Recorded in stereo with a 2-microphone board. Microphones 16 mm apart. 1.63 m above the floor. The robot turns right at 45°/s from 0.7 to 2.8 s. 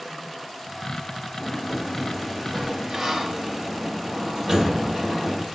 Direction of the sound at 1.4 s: 175° left.